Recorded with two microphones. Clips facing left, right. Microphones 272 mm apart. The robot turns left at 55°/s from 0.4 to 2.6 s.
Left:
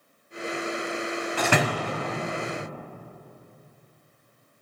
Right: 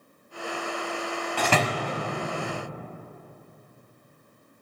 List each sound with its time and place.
1.4 s a door slam: 5° left (ahead or behind), 1.7 m; by 2.0 s 40° left (ahead or behind), 1.7 m